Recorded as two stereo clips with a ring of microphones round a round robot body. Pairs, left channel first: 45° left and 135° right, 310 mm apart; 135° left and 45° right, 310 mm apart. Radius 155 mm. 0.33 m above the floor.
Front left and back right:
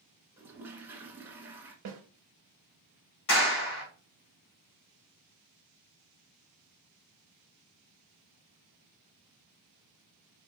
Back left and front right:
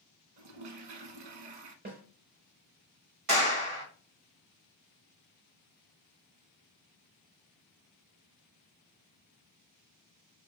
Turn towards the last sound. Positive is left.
turn(degrees=0)